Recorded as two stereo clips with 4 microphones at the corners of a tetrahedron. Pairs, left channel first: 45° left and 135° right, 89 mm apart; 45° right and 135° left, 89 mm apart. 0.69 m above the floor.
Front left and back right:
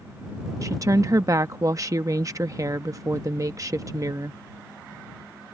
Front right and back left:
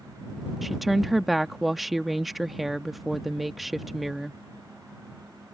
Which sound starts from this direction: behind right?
A woman speaking, at 0.6 s.